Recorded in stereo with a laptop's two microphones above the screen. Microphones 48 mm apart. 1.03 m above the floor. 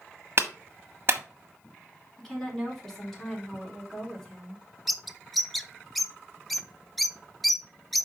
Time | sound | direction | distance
0.4 | a clap | 50° right (ahead or behind) | 1.3 m
2.2 | a woman speaking | 10° left (ahead or behind) | 4 m
4.9 | a bird | centre (ahead or behind) | 0.8 m